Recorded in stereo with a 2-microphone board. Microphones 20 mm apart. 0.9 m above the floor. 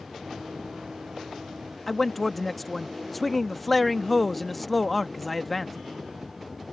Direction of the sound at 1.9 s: Centre (ahead or behind).